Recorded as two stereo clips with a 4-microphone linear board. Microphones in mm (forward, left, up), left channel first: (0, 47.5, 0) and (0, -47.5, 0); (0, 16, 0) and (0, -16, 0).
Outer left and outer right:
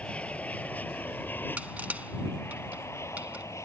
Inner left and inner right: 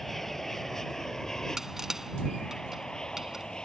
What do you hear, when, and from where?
0.0 s an aircraft: 10° left (ahead or behind); by 3.6 s 30° left (ahead or behind)
1.6 s crushing: 15° right (ahead or behind)